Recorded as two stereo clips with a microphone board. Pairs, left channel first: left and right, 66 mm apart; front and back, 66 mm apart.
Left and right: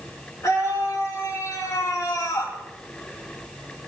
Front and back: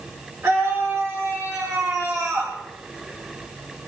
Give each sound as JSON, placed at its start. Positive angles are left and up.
{"t": 0.4, "sound": "a scream", "azimuth_deg": 135, "distance_m": 5.0}